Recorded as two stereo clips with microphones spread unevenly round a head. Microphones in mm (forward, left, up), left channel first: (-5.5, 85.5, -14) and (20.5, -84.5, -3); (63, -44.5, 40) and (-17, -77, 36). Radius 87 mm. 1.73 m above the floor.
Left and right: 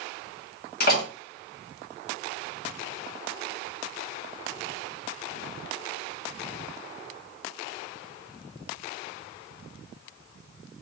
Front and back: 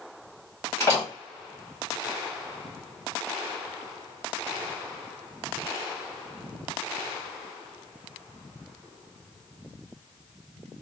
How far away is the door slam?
About 1.2 m.